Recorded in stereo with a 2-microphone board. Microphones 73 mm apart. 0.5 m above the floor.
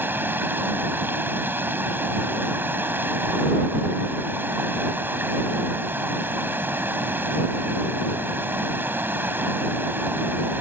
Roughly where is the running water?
Right.